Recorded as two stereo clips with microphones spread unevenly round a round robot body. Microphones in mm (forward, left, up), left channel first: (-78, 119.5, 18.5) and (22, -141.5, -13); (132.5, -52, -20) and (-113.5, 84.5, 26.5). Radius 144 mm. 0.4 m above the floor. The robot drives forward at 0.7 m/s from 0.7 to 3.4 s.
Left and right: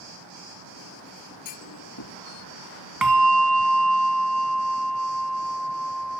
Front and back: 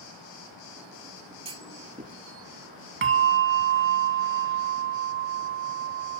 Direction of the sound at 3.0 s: 155° right.